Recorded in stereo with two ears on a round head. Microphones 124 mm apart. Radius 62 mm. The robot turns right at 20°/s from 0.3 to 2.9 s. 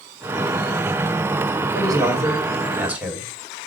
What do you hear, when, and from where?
1.7 s a man speaking: 25° right (ahead or behind), 2 m; by 3.3 s 10° right (ahead or behind), 2 m